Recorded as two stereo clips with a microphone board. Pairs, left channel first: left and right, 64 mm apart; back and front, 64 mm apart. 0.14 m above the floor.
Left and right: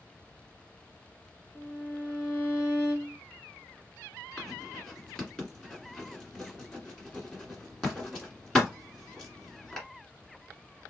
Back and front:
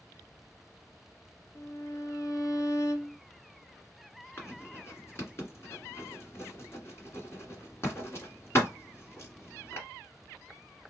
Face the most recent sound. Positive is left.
turn(degrees=165)